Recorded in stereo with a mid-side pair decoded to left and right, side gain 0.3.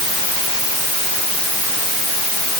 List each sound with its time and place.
Only background noise.